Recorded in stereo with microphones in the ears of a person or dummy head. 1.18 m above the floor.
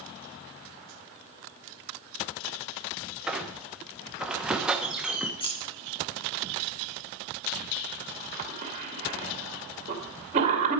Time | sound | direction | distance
3.3 | a squeak | 10° right (ahead or behind) | 1.0 m
5.4 | scissors | 25° left (ahead or behind) | 1.9 m
8.4 | a cough | 35° right (ahead or behind) | 2.5 m